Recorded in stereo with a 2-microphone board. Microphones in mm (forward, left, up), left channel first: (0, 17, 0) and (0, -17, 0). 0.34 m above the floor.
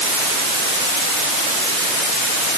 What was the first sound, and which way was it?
Only background noise.